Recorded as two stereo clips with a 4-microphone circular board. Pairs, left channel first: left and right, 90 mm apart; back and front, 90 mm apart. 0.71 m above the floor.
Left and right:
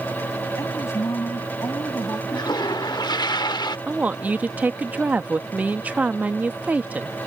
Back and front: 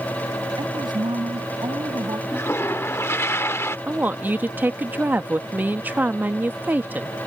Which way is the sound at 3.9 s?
40° right.